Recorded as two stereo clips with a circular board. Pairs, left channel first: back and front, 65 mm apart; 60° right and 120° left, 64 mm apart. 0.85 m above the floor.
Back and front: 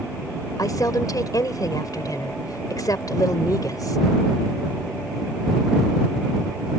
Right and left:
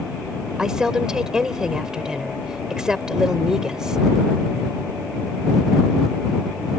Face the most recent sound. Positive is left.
turn(degrees=-160)